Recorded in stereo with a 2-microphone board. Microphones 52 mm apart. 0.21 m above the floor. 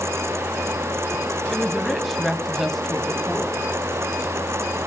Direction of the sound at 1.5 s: Centre (ahead or behind).